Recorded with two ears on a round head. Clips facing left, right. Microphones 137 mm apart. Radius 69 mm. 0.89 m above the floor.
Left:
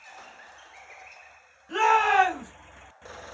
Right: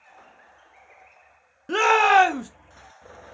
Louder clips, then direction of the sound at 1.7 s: Right 4 dB; 70° right (ahead or behind).